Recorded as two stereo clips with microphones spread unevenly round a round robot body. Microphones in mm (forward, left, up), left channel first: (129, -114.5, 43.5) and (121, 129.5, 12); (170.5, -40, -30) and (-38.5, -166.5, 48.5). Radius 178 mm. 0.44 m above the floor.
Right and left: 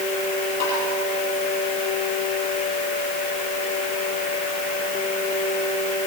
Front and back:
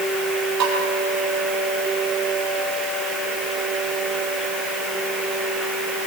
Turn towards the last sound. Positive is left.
turn(degrees=-170)